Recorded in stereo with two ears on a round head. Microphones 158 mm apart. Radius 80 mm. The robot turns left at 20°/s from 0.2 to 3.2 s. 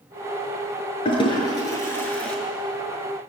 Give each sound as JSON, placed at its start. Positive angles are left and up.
{"t": 1.1, "sound": "a toilet flushing", "side_deg": 30, "distance_m": 6.0}